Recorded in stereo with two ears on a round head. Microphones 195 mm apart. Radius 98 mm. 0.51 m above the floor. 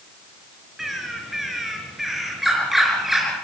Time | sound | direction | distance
0.8 | a bird | centre (ahead or behind) | 4 m